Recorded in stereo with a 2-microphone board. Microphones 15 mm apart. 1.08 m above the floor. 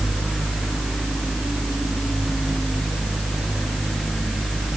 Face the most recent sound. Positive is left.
No sound to turn to.